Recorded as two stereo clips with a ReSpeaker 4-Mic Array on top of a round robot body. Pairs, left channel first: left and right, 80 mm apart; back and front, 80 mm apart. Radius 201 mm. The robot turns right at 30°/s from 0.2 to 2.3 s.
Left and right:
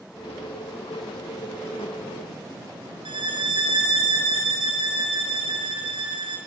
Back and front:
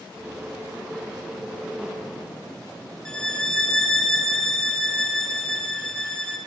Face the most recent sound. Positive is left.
turn(degrees=-100)